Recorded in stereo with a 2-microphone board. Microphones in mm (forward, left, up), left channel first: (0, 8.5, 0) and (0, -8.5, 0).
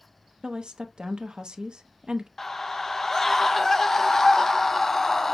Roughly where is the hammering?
I don't hear hammering.